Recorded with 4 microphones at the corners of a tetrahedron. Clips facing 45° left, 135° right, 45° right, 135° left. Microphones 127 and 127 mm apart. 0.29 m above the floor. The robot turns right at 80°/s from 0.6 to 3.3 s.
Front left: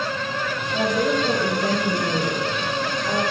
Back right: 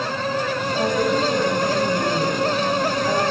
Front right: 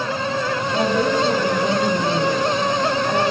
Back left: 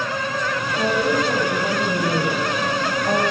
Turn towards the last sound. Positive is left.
turn(degrees=165)